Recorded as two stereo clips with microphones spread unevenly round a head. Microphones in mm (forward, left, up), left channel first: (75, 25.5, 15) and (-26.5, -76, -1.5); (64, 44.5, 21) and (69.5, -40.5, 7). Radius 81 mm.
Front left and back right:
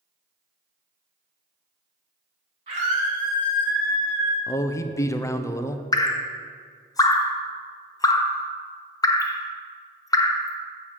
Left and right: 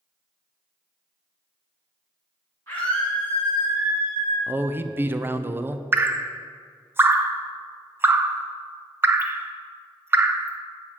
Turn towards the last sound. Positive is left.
turn(degrees=-20)